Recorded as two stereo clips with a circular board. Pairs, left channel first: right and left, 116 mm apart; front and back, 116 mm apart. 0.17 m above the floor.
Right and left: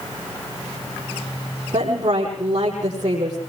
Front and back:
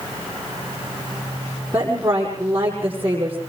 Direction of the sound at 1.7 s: 105° left.